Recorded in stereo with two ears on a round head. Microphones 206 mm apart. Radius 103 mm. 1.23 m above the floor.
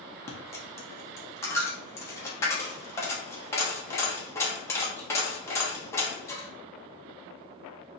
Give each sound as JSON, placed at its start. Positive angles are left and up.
{"t": 0.3, "sound": "a dropped coin", "side_deg": 10, "distance_m": 0.9}